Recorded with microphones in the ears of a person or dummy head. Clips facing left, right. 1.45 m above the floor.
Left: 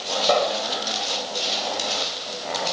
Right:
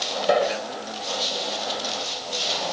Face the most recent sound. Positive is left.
turn(degrees=-15)  # may be behind; listen again after turning